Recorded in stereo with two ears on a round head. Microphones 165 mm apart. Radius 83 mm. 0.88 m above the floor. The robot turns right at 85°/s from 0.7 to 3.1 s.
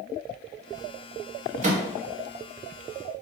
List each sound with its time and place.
1.6 s a microwave: 40° right (ahead or behind), 0.6 m; by 1.8 s 55° right (ahead or behind), 0.6 m